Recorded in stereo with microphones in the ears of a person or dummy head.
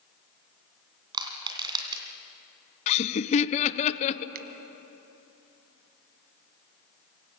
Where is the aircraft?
I don't hear an aircraft.